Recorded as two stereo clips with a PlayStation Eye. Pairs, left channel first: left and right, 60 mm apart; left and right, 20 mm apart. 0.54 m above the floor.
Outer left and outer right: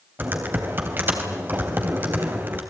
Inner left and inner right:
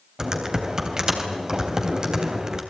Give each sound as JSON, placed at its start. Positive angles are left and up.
{"t": 0.2, "sound": "typing on a keyboard", "side_deg": -35, "distance_m": 3.5}